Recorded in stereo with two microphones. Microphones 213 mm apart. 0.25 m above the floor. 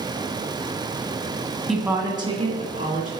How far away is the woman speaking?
About 1.5 m.